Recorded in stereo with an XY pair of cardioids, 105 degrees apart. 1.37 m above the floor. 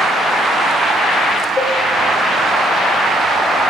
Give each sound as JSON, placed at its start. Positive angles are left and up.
{"t": 1.6, "sound": "a cowbell", "azimuth_deg": 30, "distance_m": 1.5}